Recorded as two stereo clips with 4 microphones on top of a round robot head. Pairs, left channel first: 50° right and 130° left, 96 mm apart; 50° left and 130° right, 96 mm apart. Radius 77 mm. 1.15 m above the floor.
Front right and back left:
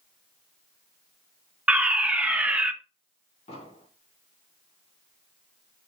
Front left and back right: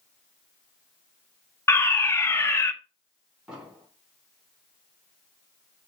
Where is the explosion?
50° right, 4 m.